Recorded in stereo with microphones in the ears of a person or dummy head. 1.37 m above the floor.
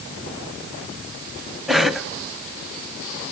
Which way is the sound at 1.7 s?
Centre (ahead or behind).